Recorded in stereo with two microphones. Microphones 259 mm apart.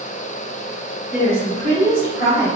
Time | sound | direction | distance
1.1 | a woman speaking | 15° right (ahead or behind) | 1.9 m